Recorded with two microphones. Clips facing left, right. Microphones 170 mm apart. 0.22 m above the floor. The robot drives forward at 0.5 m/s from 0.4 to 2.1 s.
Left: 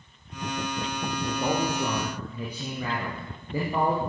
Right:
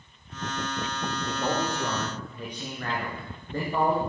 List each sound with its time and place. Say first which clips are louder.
1.2 s a man speaking: left 2 dB; 5° left (ahead or behind), 3 m; by 4.0 s 10° left (ahead or behind), 2.5 m